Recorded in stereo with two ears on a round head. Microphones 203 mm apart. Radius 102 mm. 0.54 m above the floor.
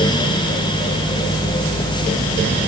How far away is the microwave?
I don't hear a microwave.